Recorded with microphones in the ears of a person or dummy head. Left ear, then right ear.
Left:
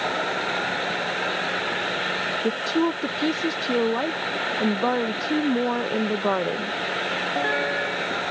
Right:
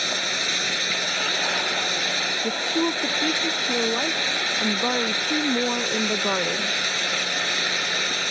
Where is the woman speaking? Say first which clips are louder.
Even; 5° left (ahead or behind).